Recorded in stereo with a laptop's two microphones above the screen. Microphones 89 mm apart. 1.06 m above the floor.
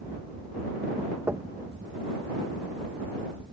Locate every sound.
0.0 s a fan: 65° right (ahead or behind)
1.3 s knocking: 25° right (ahead or behind)